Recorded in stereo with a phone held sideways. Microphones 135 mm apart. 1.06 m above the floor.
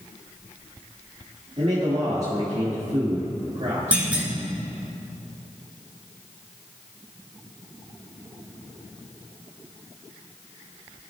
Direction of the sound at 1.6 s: 50° right (ahead or behind).